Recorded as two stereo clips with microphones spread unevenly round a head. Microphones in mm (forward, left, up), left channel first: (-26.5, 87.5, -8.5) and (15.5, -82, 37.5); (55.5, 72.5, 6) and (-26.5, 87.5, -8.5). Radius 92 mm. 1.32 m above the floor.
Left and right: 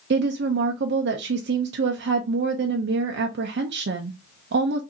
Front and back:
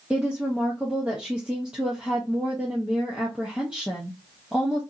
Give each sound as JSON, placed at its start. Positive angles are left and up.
{"t": 0.1, "sound": "a woman speaking", "azimuth_deg": -110, "distance_m": 0.5}